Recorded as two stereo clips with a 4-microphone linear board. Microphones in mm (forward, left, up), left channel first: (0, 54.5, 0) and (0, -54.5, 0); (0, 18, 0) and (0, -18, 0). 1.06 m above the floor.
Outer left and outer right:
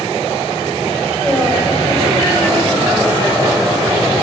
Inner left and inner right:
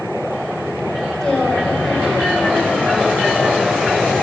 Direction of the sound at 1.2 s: 10° left (ahead or behind).